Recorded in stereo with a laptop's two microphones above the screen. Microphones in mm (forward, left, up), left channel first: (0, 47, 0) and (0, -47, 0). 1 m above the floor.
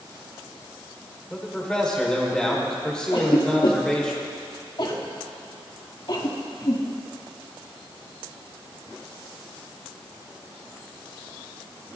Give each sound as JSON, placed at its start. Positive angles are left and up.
{"t": 1.3, "sound": "a man speaking", "side_deg": 10, "distance_m": 4.0}
{"t": 3.1, "sound": "a cough", "side_deg": 55, "distance_m": 2.5}